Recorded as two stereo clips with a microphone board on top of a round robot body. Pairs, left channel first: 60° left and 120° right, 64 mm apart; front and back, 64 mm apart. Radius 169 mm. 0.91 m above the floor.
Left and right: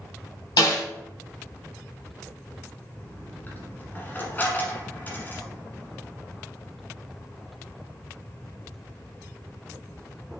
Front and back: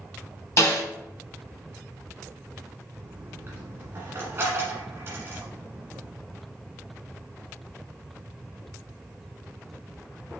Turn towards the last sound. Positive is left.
turn(degrees=120)